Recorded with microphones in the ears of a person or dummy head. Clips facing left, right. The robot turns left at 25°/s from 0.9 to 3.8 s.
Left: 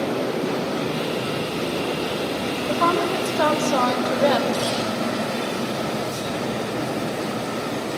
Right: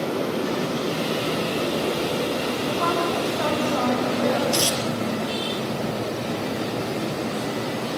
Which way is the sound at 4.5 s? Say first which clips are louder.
Left 1 dB; 75° right (ahead or behind).